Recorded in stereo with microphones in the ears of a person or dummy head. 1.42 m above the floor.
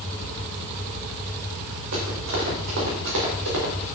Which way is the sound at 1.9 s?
75° right (ahead or behind).